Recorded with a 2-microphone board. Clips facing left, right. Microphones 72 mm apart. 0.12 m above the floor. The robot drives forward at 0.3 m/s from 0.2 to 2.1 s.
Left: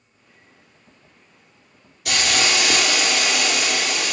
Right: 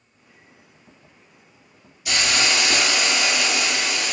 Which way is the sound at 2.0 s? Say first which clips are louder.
Left 1 dB; 65° left (ahead or behind).